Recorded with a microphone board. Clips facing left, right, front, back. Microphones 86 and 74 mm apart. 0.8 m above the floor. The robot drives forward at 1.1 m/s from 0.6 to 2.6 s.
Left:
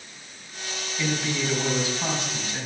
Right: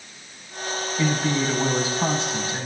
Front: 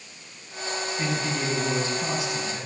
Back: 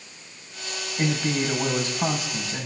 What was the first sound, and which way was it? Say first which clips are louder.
A man speaking: right 4 dB, back 5 dB; 145° right.